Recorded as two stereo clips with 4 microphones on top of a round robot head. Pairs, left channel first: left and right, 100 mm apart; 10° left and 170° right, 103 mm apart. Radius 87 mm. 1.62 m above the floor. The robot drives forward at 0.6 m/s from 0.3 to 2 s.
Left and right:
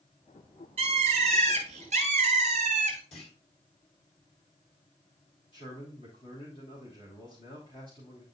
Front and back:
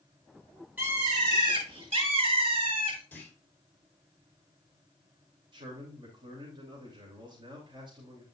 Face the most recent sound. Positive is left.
turn(degrees=145)